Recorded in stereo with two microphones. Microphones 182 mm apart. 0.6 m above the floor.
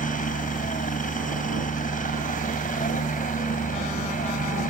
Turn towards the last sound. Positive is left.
turn(degrees=45)  # may be behind; listen again after turning